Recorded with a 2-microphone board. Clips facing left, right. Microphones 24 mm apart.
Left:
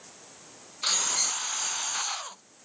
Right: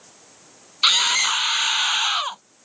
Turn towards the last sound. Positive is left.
turn(degrees=-65)  # may be behind; listen again after turning